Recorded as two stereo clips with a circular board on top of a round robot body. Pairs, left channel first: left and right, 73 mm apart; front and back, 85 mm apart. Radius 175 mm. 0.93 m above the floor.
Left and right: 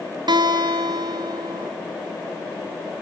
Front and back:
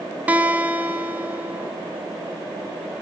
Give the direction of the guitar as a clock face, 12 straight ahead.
4 o'clock.